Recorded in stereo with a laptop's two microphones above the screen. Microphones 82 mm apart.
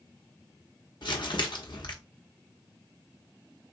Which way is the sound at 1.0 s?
70° left (ahead or behind).